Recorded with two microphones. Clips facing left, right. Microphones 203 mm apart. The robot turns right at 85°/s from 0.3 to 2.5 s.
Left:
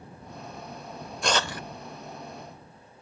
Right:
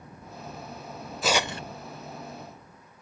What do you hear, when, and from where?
1.2 s tearing paper: straight behind; by 1.6 s 145° right